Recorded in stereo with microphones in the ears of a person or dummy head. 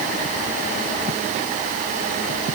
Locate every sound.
Only background noise.